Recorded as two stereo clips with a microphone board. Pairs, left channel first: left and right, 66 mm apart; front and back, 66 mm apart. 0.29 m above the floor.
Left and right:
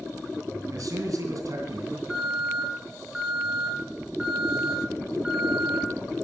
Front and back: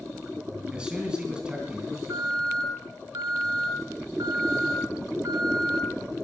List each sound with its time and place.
0.7 s a man speaking: 105° right, 2.5 m
2.1 s an alarm: 165° right, 5 m